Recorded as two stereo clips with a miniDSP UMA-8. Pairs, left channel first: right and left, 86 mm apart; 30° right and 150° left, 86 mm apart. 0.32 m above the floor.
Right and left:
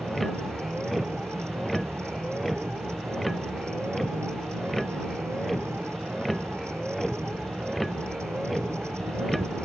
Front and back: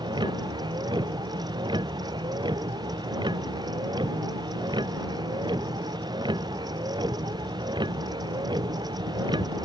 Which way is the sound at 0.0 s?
Straight behind.